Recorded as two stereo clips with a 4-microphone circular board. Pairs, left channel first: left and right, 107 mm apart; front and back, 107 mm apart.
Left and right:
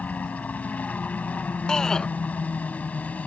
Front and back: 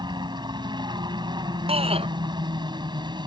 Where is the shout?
175° left.